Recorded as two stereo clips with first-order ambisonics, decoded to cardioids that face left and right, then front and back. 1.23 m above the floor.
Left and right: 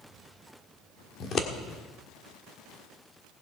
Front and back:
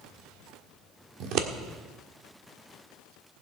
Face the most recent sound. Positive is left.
turn(degrees=145)